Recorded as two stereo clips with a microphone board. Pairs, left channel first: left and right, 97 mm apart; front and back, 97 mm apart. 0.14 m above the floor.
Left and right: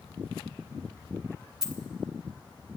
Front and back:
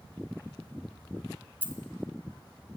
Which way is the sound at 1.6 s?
165° right.